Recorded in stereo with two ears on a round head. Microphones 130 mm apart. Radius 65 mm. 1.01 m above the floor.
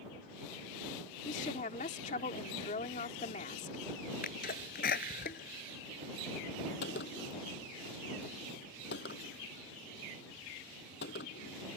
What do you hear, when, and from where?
1.2 s a woman speaking: 55° left (ahead or behind)
4.2 s a sneeze: 65° left (ahead or behind)
6.8 s a gunshot: 85° left